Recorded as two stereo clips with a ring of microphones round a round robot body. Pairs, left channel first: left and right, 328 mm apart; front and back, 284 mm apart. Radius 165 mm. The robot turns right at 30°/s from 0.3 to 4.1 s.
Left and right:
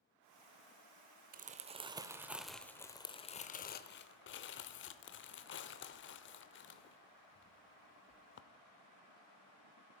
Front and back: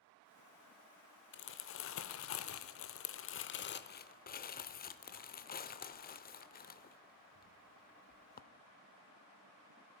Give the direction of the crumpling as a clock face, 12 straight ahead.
1 o'clock.